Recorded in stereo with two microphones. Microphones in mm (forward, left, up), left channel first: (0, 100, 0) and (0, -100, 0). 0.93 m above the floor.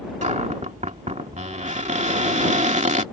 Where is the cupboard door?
35° right (ahead or behind).